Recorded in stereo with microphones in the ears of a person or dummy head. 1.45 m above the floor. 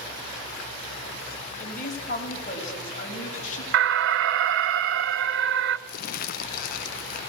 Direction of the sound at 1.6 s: 50° left (ahead or behind).